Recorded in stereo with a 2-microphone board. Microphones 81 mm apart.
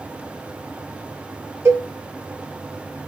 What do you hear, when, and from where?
1.6 s a cowbell: 30° right (ahead or behind), 2.5 m